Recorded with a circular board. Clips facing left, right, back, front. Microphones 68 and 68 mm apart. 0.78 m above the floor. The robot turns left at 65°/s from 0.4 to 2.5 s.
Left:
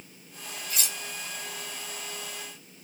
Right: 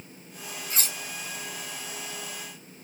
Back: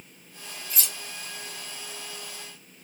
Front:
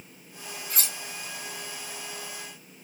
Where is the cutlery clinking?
30° right, 2 m; by 1.0 s 50° right, 2 m.